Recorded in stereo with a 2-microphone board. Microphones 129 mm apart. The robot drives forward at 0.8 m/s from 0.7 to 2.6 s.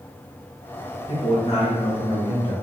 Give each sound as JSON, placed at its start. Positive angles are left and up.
{"t": 1.1, "sound": "a man speaking", "side_deg": 55, "distance_m": 1.3}